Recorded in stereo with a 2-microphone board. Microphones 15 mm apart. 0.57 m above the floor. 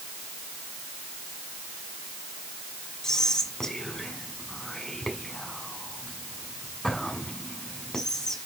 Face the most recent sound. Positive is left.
turn(degrees=60)  # may be behind; listen again after turning